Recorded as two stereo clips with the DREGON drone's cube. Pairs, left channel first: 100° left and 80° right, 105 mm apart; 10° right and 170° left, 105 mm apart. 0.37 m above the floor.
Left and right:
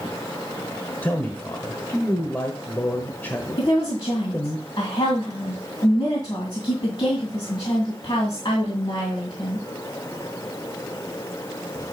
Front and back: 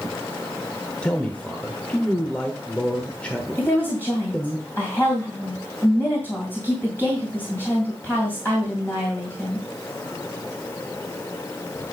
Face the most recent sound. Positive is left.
turn(degrees=55)